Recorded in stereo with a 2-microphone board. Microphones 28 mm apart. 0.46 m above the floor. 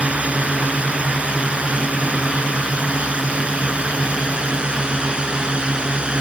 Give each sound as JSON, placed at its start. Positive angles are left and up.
{"t": 0.0, "sound": "a drone", "side_deg": -50}